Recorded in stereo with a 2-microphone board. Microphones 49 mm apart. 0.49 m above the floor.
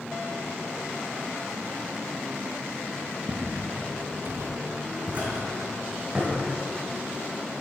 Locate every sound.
3.3 s footsteps: 5° right (ahead or behind), 1.5 m; by 6.3 s 20° right (ahead or behind), 3 m